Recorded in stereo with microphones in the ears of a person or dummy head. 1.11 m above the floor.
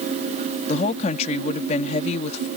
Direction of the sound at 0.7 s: 40° left (ahead or behind).